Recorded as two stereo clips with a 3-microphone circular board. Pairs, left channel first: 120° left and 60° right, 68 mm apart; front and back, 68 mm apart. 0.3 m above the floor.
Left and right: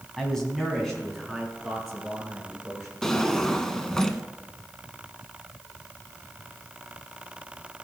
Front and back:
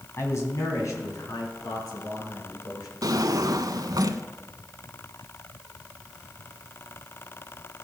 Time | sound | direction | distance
0.2 | a man speaking | 40° left | 2.5 m
3.0 | a drawer | 160° right | 0.7 m